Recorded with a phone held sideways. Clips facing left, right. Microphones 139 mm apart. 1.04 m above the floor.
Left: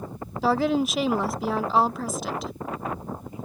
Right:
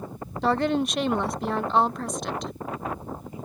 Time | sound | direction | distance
0.4 | a woman speaking | 5° left (ahead or behind) | ?